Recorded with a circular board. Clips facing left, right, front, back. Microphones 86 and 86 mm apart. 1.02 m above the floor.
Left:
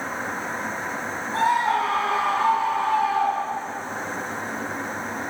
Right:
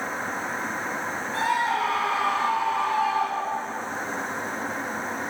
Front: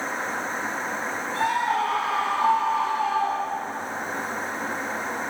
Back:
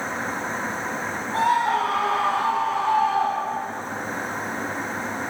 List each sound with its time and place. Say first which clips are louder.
1.3 s a scream: left 4 dB, back 4 dB; 150° left, 4.5 m; by 3.8 s 170° left, 6.5 m